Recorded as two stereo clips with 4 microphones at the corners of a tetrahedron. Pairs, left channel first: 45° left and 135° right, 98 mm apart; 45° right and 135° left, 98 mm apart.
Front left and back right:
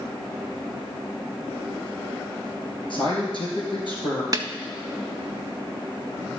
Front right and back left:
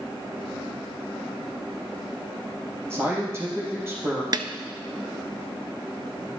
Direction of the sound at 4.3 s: 175° left.